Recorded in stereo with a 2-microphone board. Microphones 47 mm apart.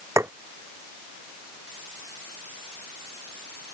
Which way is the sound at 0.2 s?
80° right.